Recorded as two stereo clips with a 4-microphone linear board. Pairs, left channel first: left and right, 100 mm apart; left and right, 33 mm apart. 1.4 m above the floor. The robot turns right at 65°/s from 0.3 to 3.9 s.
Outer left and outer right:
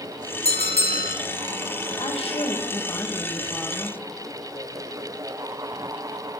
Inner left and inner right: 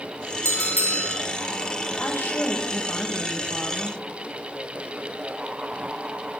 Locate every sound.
0.5 s a bell: 90° left, 1.5 m; by 1.2 s 135° left, 1.5 m
2.0 s a woman speaking: 80° left, 1.9 m; by 4.0 s 155° right, 1.9 m